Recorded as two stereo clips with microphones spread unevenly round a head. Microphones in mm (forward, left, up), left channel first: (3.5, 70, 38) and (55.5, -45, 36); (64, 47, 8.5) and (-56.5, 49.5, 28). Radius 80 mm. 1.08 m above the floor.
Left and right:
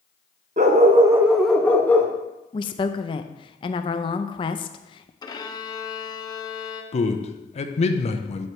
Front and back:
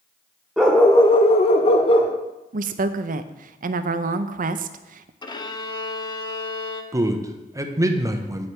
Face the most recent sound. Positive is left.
turn(degrees=115)